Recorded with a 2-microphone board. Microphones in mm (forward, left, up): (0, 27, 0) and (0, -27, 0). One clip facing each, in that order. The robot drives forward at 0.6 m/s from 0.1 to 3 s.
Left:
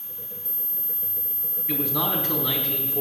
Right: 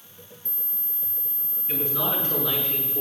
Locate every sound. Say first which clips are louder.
1.7 s a man speaking: left 2 dB; 80° left, 4 m; by 3.0 s 75° left (ahead or behind), 4 m